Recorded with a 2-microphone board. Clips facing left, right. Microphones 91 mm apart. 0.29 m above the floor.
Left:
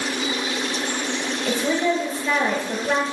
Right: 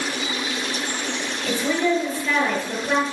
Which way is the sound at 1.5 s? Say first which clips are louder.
Even; 20° left (ahead or behind).